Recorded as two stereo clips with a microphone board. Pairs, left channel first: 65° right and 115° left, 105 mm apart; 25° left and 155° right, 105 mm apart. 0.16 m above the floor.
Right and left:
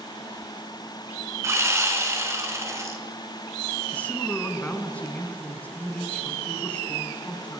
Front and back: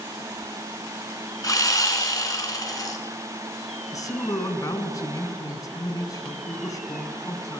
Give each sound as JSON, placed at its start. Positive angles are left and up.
{"t": 1.4, "sound": "sawing", "azimuth_deg": 60, "distance_m": 1.6}
{"t": 3.9, "sound": "a man speaking", "azimuth_deg": 0, "distance_m": 1.3}